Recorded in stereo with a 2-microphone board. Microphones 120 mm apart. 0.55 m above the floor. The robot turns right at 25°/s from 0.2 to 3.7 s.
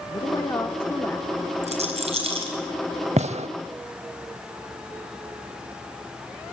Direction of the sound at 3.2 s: 70° right (ahead or behind).